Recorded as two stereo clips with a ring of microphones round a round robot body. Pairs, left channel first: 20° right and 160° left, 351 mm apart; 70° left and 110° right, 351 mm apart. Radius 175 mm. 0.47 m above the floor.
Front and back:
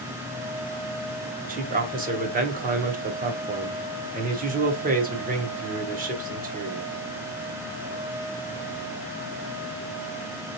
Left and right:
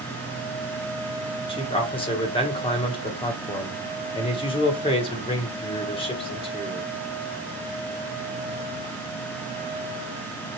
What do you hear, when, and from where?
1.5 s a man speaking: 125° left, 0.9 m